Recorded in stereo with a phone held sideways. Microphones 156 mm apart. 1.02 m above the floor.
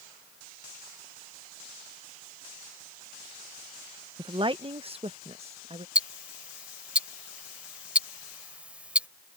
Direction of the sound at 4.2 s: 30° right (ahead or behind).